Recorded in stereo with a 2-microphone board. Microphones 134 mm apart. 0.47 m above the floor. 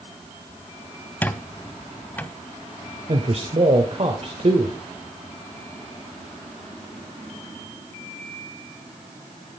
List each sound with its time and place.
1.2 s a squeak: 10° left (ahead or behind), 0.7 m
3.1 s a man speaking: 50° right (ahead or behind), 1.8 m